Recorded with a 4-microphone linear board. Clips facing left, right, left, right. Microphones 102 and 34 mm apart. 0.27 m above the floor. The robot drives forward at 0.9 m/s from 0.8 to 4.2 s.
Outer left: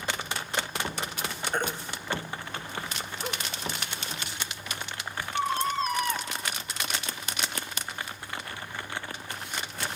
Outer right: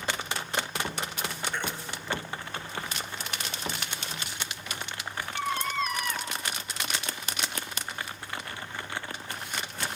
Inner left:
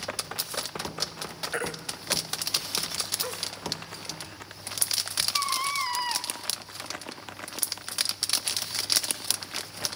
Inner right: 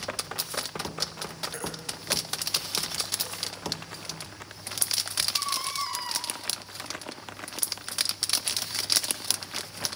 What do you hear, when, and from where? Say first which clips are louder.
1.5 s a baby crying: outer left 3 dB, inner left 4 dB; 45° left (ahead or behind), 1.5 m; by 6.3 s 35° left (ahead or behind), 1.7 m